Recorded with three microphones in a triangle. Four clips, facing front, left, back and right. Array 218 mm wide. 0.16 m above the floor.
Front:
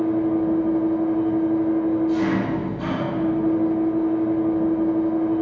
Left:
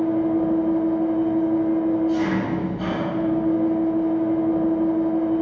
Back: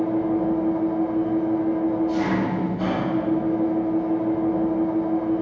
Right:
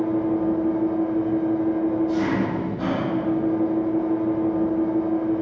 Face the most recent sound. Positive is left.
turn(degrees=-165)